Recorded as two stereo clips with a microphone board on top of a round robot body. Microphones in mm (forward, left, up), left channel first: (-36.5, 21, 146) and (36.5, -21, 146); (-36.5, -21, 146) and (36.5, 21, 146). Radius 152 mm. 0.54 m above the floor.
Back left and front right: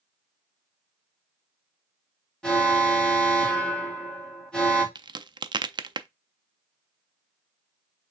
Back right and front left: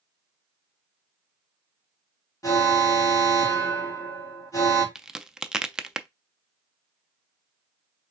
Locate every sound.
2.4 s an alarm: 135° right, 2.5 m
5.0 s a crack: 50° right, 0.6 m